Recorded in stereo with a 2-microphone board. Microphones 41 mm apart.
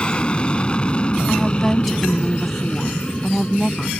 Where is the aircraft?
30° left (ahead or behind).